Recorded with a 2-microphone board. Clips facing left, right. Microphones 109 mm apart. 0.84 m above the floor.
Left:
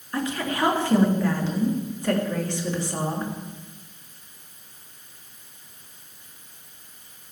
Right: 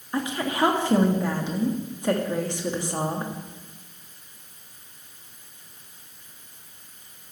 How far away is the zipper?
No zipper in this recording.